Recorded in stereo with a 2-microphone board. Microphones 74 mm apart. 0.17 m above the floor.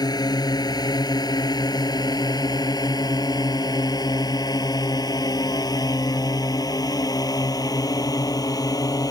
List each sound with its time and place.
0.0 s a drone: 60° left (ahead or behind); by 9.1 s 55° left (ahead or behind)